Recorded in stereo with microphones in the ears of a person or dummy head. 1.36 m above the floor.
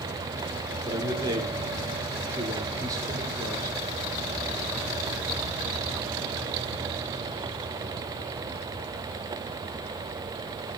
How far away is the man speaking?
About 4 m.